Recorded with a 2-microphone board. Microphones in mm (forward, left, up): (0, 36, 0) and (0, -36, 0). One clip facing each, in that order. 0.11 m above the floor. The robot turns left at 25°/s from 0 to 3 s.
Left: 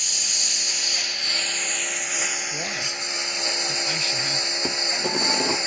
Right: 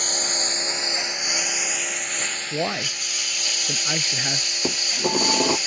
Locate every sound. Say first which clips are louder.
0.0 s a lawn mower: right 7 dB; 130° right; by 5.7 s 155° left
2.5 s a man speaking: right 4 dB; 35° right (ahead or behind)
4.6 s dishes clattering: right 4 dB; 15° right (ahead or behind)